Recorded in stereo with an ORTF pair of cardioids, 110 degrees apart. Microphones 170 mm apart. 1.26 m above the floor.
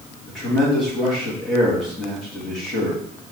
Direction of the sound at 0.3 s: 5° left.